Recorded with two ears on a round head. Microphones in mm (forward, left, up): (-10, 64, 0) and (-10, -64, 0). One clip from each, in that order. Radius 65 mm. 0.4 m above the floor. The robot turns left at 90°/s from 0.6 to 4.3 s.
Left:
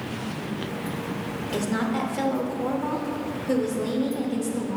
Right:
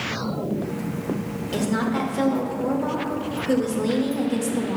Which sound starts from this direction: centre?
A woman speaking, at 1.5 s.